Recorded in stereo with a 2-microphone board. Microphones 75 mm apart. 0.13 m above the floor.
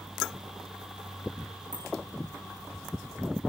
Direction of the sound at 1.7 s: 65° right (ahead or behind).